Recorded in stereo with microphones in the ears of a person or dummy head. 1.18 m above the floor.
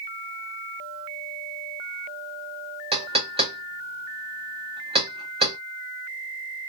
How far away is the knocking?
About 0.9 m.